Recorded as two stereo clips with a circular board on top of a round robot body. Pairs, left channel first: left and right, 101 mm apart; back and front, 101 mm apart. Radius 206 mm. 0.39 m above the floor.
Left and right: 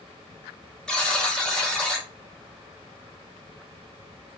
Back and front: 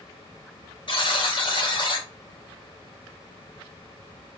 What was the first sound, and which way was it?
A buzzer, 170° left.